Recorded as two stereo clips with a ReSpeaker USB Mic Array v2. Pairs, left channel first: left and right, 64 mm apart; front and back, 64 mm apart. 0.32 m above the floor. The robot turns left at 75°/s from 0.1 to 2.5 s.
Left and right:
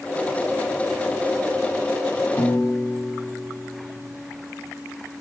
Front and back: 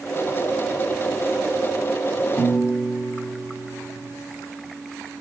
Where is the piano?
65° left, 0.9 m; by 4.0 s 55° left, 0.9 m.